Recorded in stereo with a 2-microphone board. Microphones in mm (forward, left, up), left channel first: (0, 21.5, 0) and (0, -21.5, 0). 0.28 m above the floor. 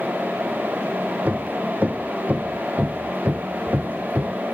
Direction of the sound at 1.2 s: 35° right (ahead or behind).